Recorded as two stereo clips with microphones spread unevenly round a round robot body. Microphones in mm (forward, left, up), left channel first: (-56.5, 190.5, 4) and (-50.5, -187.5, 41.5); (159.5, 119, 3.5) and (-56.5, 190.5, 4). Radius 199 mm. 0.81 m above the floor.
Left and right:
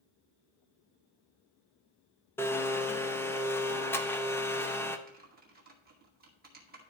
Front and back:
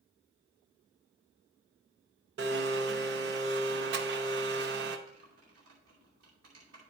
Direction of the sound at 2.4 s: 165° left.